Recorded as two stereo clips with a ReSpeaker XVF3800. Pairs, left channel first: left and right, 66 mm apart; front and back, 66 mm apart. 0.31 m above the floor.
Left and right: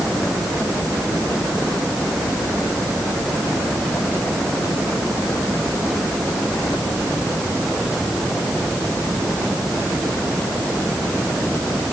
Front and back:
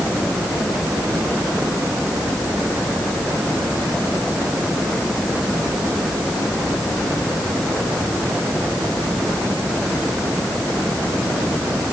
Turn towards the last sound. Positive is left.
No sound to turn to.